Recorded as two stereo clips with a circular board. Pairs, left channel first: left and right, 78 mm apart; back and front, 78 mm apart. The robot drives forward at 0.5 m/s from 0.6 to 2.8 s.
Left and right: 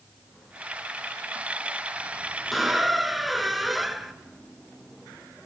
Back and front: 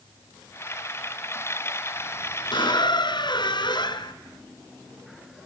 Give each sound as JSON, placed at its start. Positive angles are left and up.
{"t": 2.5, "sound": "a squeak", "azimuth_deg": 180, "distance_m": 1.4}